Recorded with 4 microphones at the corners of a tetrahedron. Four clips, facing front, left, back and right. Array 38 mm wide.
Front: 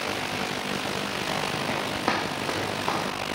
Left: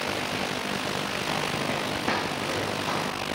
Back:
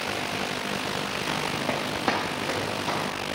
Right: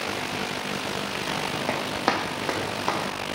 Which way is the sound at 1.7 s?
110° right.